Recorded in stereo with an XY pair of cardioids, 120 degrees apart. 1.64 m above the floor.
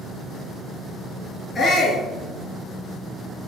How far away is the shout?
About 3.5 m.